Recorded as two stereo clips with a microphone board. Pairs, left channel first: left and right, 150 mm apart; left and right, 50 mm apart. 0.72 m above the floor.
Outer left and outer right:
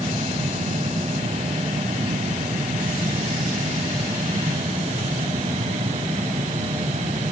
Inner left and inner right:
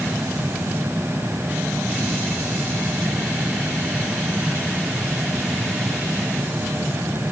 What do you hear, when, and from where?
Only background noise.